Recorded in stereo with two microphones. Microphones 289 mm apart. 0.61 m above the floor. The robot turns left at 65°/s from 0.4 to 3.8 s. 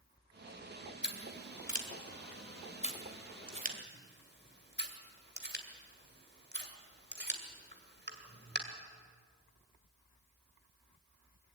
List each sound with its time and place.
1.0 s scissors: 35° left (ahead or behind), 2 m; by 8.6 s 35° right (ahead or behind), 2 m